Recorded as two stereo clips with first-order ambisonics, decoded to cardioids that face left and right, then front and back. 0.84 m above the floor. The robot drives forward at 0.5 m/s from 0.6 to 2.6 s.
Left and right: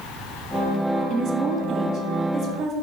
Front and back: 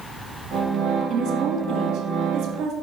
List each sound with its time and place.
1.1 s a woman speaking: 135° right, 1.6 m; by 2.7 s 150° right, 2 m